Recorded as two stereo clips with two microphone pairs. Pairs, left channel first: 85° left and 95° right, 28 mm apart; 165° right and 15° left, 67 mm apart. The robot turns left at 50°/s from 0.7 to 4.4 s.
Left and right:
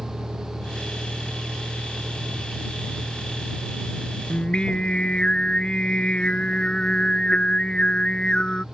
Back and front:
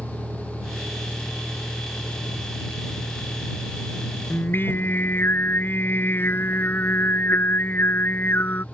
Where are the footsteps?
No footsteps in this recording.